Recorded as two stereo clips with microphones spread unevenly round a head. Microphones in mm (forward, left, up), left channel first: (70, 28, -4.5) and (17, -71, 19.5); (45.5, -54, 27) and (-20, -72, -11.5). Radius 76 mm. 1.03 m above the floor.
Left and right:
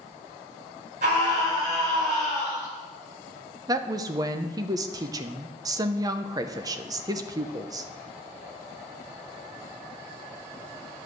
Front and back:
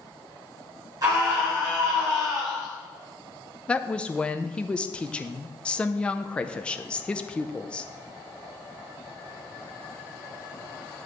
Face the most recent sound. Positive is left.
turn(degrees=-140)